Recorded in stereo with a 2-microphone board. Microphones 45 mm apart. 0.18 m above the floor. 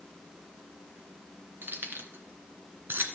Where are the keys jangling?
50° right (ahead or behind), 2 m.